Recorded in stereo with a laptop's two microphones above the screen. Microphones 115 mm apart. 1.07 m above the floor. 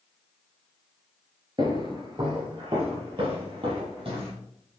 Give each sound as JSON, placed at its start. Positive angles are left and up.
{"t": 1.6, "sound": "footsteps", "side_deg": -40, "distance_m": 1.3}